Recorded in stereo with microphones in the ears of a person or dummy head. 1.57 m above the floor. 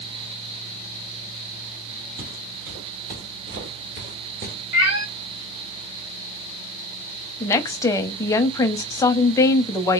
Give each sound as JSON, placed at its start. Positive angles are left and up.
{"t": 2.2, "sound": "footsteps", "side_deg": -50, "distance_m": 3.0}
{"t": 4.7, "sound": "a cat meowing", "side_deg": -20, "distance_m": 0.9}
{"t": 7.4, "sound": "a woman speaking", "side_deg": 20, "distance_m": 0.5}